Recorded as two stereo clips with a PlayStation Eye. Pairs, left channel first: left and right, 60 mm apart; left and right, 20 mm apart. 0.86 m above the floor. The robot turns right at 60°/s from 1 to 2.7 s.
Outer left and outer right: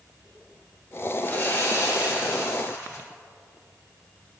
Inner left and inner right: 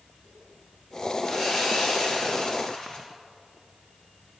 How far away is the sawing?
About 3.5 m.